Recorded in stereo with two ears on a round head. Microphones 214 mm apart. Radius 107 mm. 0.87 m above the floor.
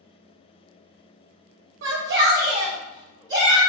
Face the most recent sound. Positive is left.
turn(degrees=-20)  # may be behind; listen again after turning